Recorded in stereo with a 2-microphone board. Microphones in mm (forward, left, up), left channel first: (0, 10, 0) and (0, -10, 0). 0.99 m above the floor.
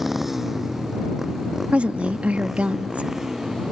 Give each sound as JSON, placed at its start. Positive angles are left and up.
{"t": 0.0, "sound": "a motorcycle", "side_deg": -10}
{"t": 1.7, "sound": "a woman speaking", "side_deg": -80}